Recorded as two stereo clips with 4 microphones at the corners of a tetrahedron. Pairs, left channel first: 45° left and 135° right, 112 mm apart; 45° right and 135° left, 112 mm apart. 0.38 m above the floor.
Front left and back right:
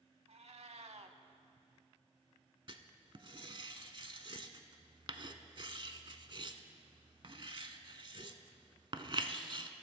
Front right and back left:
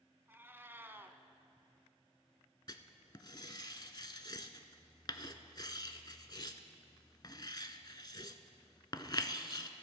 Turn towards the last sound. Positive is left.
turn(degrees=-95)